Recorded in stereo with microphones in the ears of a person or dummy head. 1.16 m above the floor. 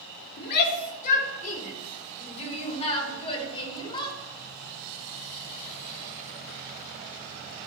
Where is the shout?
55° left (ahead or behind), 3 m; by 4.2 s 30° left (ahead or behind), 4.5 m.